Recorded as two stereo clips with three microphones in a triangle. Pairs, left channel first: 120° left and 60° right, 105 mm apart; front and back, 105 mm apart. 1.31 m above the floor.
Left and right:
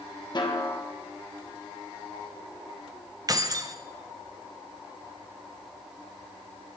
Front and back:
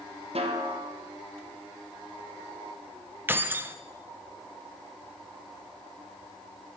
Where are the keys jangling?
110° right, 0.5 m.